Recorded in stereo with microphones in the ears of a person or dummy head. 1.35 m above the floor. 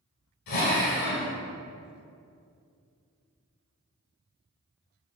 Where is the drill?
55° left (ahead or behind), 2.5 m.